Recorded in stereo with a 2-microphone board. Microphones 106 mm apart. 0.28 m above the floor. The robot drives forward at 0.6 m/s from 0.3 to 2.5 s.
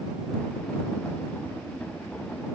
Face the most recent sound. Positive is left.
No sound to turn to.